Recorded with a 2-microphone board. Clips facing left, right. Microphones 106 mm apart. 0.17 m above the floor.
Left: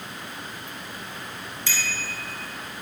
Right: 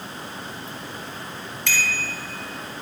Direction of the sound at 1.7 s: 60° right (ahead or behind).